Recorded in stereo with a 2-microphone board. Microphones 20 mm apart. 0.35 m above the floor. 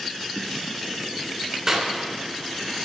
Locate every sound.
1.7 s a clap: 30° right (ahead or behind), 3 m